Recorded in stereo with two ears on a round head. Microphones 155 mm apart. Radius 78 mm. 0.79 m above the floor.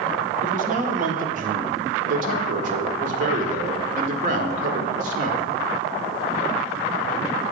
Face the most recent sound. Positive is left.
turn(degrees=-45)  # may be behind; listen again after turning